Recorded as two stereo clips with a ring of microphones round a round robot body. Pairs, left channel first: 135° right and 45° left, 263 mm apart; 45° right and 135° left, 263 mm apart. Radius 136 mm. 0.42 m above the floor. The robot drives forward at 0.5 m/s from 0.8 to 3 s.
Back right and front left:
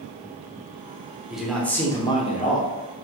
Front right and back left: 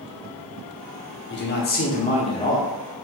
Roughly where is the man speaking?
Ahead right.